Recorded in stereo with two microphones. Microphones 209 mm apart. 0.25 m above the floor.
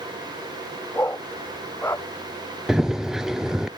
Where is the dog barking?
10° left (ahead or behind).